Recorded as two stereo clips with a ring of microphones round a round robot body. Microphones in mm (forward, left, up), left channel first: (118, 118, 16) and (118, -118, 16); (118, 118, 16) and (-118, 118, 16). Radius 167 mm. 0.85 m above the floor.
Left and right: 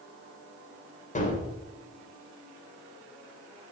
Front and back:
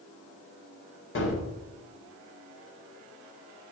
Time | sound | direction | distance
1.1 | a gunshot | 30° left | 3.5 m